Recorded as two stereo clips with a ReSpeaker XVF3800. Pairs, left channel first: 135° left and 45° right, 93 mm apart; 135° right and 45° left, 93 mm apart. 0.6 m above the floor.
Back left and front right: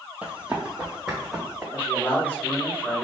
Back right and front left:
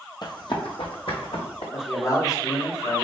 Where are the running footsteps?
115° right, 1.0 m; by 1.6 s 130° right, 2 m.